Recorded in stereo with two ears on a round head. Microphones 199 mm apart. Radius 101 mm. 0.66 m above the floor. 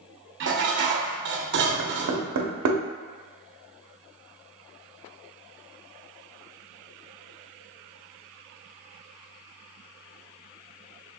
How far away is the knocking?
About 0.5 m.